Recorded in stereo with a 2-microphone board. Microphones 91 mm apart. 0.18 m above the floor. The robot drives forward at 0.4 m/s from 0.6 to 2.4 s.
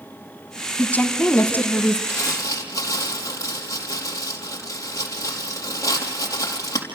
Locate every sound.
0.8 s a woman speaking: 20° left (ahead or behind), 1.5 m
2.1 s crumpling: 35° left (ahead or behind), 4 m; by 6.8 s 40° left (ahead or behind), 4 m